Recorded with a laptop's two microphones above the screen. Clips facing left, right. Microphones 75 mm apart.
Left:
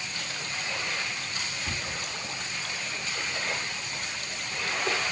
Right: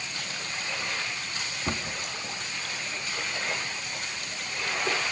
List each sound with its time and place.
1.7 s a cupboard door: 55° right (ahead or behind), 2 m